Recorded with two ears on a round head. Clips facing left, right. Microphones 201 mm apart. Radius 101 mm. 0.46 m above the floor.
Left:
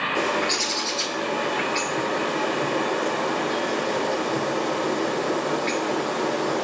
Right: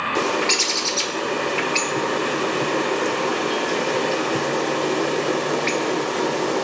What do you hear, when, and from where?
0.1 s a bird: 40° right (ahead or behind), 1.4 m